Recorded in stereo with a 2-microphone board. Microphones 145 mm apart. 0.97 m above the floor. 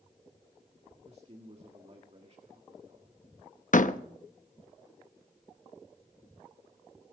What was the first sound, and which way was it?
A man speaking, 45° right (ahead or behind).